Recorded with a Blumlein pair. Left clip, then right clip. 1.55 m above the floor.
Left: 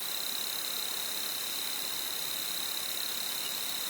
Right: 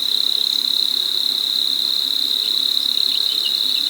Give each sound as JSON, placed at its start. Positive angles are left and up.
{"t": 0.0, "sound": "an insect", "azimuth_deg": -50}